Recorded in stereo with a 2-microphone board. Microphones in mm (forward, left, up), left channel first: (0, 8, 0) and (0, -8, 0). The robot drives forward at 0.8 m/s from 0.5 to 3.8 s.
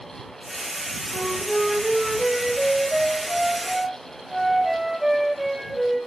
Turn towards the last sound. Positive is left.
turn(degrees=-10)  # may be behind; listen again after turning